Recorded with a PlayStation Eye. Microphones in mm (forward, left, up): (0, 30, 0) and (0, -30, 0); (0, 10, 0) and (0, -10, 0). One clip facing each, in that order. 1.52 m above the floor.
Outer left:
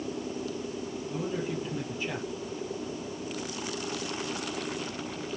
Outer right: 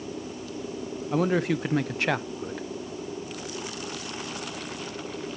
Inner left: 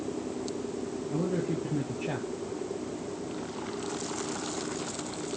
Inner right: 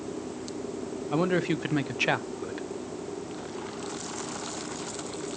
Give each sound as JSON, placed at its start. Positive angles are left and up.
{"t": 1.1, "sound": "a man speaking", "side_deg": -75, "distance_m": 0.6}